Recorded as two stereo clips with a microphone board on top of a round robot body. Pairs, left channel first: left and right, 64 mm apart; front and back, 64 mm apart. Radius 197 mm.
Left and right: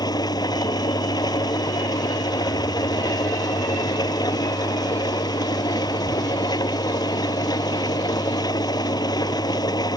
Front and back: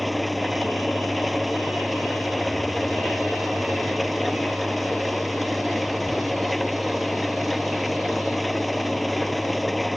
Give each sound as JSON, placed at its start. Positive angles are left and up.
{"t": 0.0, "sound": "an engine running", "azimuth_deg": 90}